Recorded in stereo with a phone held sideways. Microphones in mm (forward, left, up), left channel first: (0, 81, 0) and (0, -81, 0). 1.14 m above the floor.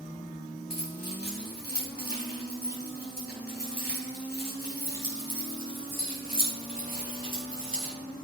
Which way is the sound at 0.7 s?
75° left (ahead or behind).